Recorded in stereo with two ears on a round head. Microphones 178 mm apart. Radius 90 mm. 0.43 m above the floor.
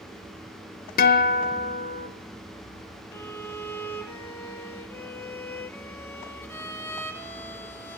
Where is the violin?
10° left (ahead or behind), 0.6 m.